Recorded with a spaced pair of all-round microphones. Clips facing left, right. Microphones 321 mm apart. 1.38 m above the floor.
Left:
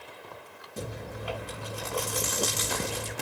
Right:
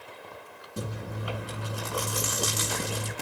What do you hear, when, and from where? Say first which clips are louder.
0.8 s chewing: right 1 dB; 15° right (ahead or behind), 6 m